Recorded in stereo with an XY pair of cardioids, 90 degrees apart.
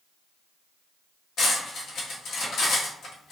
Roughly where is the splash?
I don't hear a splash.